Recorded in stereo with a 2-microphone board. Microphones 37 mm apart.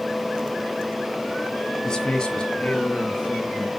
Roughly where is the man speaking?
Centre.